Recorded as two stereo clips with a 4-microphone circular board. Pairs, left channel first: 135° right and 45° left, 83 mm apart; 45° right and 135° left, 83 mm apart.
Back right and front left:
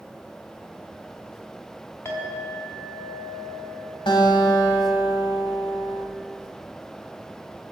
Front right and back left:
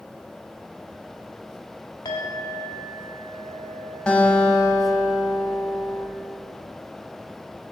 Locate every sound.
2.0 s a clink: 80° right, 1.5 m
4.1 s a guitar: 125° right, 1.5 m